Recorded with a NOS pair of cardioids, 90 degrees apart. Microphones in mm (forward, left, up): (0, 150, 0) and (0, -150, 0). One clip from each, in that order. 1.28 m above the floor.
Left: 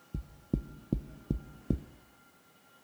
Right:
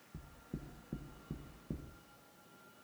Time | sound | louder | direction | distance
0.1 | knocking | left 12 dB | 55° left | 0.5 m